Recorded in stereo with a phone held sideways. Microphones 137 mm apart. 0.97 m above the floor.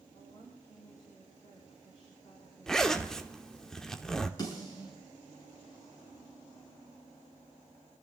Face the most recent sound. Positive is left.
turn(degrees=30)  # may be behind; listen again after turning